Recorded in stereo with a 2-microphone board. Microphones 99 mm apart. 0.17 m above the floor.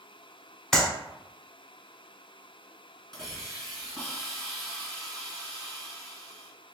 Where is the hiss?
5° left (ahead or behind), 1.4 m.